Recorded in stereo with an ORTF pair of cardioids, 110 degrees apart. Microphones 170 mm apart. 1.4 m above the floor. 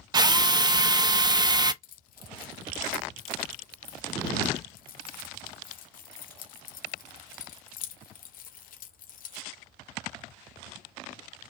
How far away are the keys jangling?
About 1.0 m.